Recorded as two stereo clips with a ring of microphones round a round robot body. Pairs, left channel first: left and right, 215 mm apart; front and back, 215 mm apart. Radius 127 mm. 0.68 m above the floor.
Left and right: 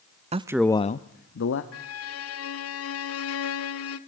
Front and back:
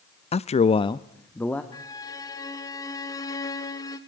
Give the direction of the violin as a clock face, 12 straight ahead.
9 o'clock.